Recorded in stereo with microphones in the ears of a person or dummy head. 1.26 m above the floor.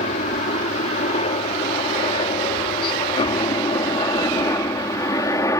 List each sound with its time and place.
0.0 s a helicopter: 45° left (ahead or behind); by 5.6 s 20° left (ahead or behind)